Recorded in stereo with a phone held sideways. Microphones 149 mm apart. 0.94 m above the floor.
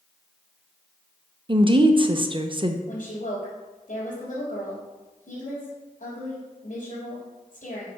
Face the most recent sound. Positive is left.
turn(degrees=60)  # may be behind; listen again after turning